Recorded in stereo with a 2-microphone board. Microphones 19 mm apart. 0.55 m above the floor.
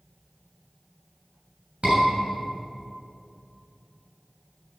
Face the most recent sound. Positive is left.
turn(degrees=-65)  # may be behind; listen again after turning